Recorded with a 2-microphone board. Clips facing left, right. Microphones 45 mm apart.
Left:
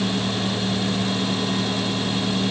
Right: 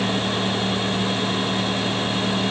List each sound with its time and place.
Only background noise.